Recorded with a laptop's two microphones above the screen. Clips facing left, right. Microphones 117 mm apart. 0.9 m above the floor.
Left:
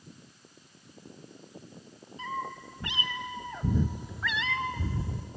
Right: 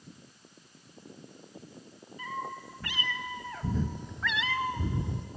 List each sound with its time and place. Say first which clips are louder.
2.2 s a cat meowing: left 2 dB; 25° left (ahead or behind), 2.5 m; by 5.3 s 25° right (ahead or behind), 1.0 m